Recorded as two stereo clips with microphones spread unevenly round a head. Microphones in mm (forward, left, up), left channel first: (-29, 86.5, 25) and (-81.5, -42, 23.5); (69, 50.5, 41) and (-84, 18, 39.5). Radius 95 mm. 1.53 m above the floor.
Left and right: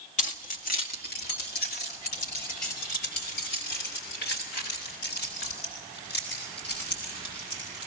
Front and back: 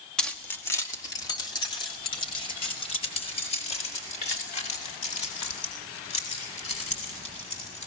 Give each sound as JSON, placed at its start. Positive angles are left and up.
{"t": 0.2, "sound": "keys jangling", "azimuth_deg": 100, "distance_m": 1.7}